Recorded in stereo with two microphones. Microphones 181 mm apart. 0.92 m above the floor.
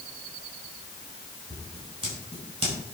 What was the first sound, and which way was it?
Scissors, 30° right (ahead or behind).